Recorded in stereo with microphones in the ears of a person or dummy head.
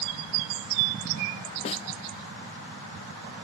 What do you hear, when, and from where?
1.6 s a snare drum: 35° left (ahead or behind)